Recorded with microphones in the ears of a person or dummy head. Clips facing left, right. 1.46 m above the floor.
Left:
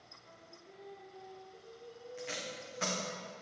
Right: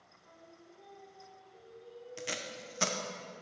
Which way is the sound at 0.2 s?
25° left (ahead or behind).